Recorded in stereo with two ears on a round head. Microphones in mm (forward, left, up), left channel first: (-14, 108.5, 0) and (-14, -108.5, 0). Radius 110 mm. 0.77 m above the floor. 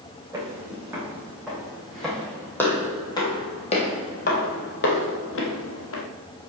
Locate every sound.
0.3 s footsteps: 10° right (ahead or behind), 2.5 m; by 6.0 s 65° left (ahead or behind), 1.6 m